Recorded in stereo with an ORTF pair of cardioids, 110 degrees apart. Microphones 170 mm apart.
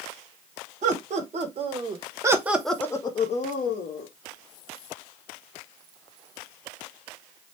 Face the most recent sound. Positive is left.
turn(degrees=75)